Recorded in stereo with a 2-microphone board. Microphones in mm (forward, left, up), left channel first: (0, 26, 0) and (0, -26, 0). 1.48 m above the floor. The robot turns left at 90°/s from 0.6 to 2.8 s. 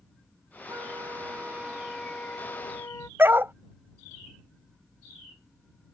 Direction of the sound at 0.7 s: 70° right.